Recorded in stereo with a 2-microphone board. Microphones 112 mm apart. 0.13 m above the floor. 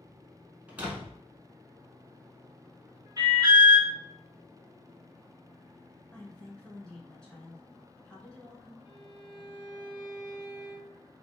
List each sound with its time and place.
0.7 s a door slam: 15° right (ahead or behind), 0.8 m
3.2 s an alarm: 35° right (ahead or behind), 1.5 m
6.1 s a woman speaking: 10° left (ahead or behind), 1.3 m
8.8 s a violin: 5° right (ahead or behind), 1.9 m